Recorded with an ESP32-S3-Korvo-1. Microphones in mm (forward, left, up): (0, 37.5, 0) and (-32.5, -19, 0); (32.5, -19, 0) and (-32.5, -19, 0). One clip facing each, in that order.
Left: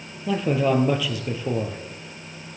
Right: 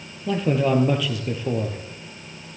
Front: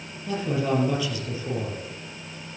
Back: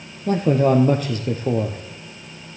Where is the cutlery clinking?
I don't hear cutlery clinking.